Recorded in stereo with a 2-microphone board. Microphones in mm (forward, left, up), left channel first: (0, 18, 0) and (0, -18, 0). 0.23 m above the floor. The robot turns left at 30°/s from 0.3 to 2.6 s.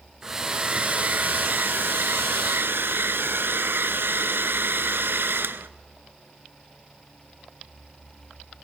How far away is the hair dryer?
About 0.7 m.